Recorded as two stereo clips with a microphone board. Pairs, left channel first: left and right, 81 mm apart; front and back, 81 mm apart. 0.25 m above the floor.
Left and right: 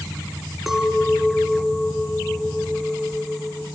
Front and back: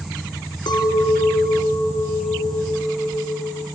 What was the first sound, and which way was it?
A clink, 5° right.